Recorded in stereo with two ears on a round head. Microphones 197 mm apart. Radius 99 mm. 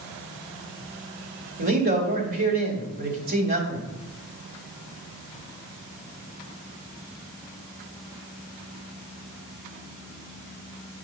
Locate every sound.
1.6 s a man speaking: 45° right (ahead or behind), 1.9 m